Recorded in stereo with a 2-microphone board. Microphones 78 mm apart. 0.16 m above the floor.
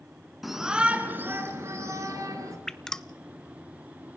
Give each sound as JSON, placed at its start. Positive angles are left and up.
{"t": 0.4, "sound": "a shout", "side_deg": 0, "distance_m": 2.0}
{"t": 2.7, "sound": "dripping", "side_deg": 5, "distance_m": 0.6}